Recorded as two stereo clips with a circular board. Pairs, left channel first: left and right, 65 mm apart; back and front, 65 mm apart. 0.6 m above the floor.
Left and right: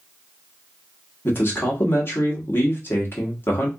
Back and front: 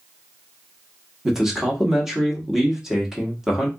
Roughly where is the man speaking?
Left.